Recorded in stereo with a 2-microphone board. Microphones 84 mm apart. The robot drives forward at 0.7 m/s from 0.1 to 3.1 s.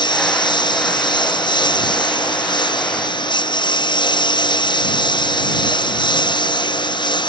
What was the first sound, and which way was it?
A lawn mower, 70° left (ahead or behind).